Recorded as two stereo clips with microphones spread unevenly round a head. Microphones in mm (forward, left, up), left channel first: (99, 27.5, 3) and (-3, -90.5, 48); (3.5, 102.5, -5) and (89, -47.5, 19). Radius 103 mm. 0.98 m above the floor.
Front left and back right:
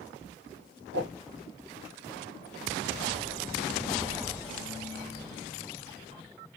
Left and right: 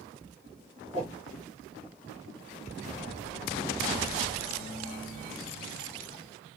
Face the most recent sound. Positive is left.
turn(degrees=-130)